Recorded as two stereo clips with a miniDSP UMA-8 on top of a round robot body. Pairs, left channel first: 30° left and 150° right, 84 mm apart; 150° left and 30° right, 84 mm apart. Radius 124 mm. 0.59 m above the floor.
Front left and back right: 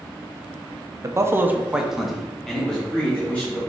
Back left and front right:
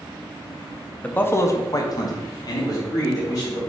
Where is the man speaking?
145° right, 0.7 m; by 3.6 s 105° left, 2.0 m.